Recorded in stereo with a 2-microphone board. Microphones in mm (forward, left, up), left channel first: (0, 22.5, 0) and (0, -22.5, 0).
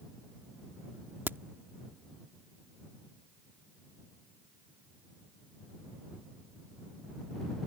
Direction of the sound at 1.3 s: 55° right (ahead or behind).